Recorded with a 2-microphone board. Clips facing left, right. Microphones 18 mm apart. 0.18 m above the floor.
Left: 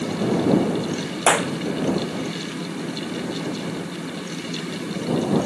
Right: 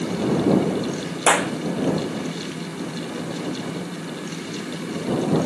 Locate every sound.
1.3 s a clap: 20° right (ahead or behind)